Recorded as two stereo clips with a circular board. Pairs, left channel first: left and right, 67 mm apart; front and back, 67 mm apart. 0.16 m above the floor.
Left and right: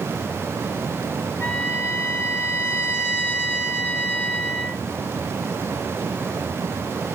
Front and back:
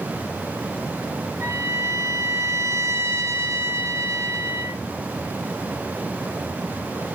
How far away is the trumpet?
About 2.5 m.